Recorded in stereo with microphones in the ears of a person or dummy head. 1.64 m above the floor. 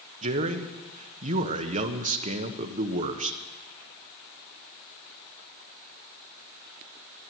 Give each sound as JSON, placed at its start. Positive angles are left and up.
{"t": 0.2, "sound": "a man speaking", "side_deg": -40, "distance_m": 1.4}